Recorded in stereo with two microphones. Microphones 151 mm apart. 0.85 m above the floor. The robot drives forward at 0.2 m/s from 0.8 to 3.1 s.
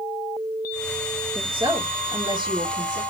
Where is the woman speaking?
35° right (ahead or behind), 1.0 m; by 3.0 s 30° right (ahead or behind), 1.2 m.